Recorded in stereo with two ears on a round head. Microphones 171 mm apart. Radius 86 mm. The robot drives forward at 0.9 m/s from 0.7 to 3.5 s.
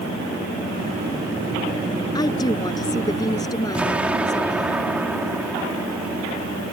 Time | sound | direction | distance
2.1 | a woman speaking | 20° left (ahead or behind) | ?
3.8 | an explosion | 5° right (ahead or behind) | ?